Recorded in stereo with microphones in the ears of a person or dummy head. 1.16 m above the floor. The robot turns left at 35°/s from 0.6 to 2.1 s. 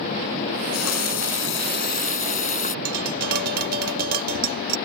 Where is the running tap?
90° left; by 2.8 s 40° left.